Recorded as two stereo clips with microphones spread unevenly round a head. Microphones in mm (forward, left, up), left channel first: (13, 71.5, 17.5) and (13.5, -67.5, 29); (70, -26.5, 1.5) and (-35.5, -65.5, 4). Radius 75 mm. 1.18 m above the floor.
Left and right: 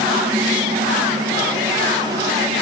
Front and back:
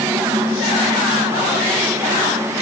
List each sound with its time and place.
Only background noise.